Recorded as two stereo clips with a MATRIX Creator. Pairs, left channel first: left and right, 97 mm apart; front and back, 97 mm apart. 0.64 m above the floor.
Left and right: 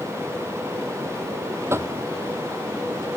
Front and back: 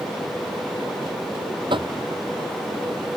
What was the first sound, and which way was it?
Knocking, 150° right.